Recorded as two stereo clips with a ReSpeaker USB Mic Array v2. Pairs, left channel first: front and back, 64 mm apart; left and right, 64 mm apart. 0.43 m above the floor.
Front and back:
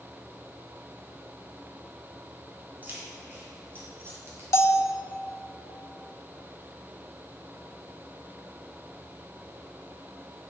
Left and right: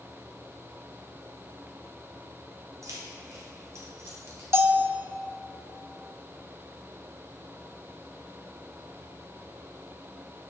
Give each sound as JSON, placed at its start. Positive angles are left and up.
{"t": 2.8, "sound": "keys jangling", "azimuth_deg": -120, "distance_m": 2.5}
{"t": 4.5, "sound": "a bell", "azimuth_deg": -40, "distance_m": 0.6}